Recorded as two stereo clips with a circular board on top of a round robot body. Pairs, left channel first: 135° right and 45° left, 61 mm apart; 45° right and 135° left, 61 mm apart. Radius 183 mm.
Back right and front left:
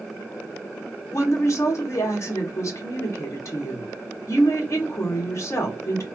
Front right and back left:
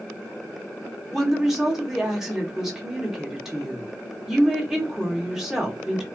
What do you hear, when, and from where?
1.1 s a woman speaking: 140° right, 1.4 m